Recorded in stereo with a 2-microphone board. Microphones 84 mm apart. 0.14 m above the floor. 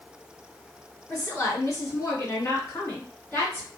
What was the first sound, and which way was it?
A woman speaking, 40° left (ahead or behind).